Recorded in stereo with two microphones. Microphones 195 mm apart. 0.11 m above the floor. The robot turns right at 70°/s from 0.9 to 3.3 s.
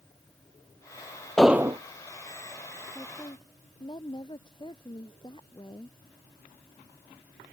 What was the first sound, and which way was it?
An explosion, 175° left.